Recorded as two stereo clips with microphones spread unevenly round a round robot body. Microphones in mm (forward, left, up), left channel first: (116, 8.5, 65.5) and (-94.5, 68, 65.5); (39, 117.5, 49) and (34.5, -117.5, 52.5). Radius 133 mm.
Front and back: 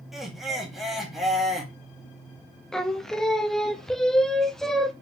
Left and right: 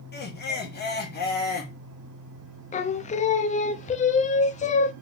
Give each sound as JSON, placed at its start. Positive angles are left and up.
{"t": 0.1, "sound": "laughter", "azimuth_deg": 75, "distance_m": 1.5}
{"t": 2.7, "sound": "singing", "azimuth_deg": 70, "distance_m": 0.5}